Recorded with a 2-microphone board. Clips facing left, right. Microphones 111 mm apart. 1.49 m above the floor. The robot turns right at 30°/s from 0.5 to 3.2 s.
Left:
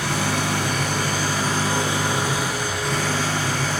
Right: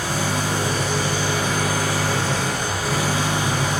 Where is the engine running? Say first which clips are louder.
Even; 115° left, 6 m; by 3.8 s 165° right, 6 m.